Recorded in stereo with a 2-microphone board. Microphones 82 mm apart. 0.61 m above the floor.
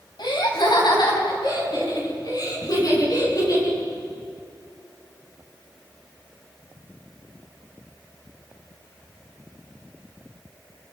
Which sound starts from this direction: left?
Laughter, at 0.2 s.